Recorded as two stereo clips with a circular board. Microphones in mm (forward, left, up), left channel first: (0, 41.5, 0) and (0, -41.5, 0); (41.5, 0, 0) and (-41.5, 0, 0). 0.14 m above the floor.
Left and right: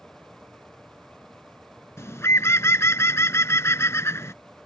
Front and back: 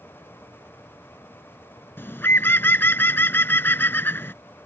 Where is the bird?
50° left.